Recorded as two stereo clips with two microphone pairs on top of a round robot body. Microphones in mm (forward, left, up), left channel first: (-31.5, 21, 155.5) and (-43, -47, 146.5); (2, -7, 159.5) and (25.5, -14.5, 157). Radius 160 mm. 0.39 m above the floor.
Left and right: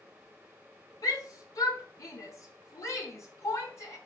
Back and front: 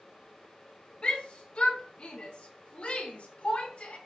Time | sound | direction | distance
1.0 | a shout | 110° left | 4 m